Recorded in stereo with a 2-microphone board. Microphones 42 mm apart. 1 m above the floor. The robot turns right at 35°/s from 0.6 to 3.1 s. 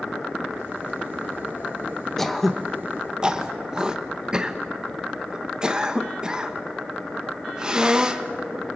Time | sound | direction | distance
2.2 | throat clearing | 10° left (ahead or behind) | 1.2 m